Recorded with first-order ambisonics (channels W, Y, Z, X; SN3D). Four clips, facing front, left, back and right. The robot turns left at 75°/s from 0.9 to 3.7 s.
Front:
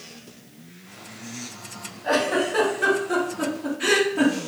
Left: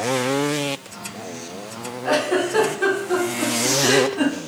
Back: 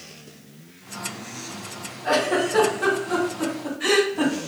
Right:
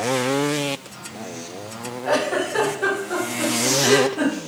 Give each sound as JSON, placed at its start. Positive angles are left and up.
{"t": 2.0, "sound": "a giggle", "azimuth_deg": 135, "distance_m": 1.7}